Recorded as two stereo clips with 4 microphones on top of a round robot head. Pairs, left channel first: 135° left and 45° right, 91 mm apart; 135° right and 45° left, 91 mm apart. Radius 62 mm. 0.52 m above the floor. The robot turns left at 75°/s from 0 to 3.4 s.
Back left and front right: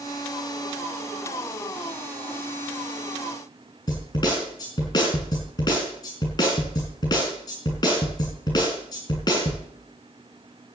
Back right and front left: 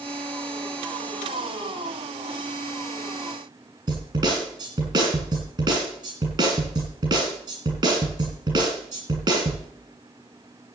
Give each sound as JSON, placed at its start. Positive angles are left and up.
{"t": 3.9, "sound": "a snare drum", "azimuth_deg": 85, "distance_m": 7.0}